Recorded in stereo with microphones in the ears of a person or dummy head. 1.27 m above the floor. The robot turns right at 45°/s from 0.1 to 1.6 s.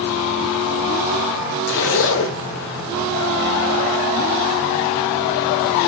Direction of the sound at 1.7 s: 55° left (ahead or behind).